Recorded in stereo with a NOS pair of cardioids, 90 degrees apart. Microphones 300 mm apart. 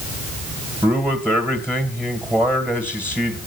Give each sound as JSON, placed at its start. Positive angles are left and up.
{"t": 0.8, "sound": "a man speaking", "azimuth_deg": -5, "distance_m": 2.0}